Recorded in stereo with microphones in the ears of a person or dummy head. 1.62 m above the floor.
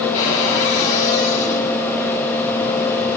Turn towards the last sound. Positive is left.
turn(degrees=40)  # may be behind; listen again after turning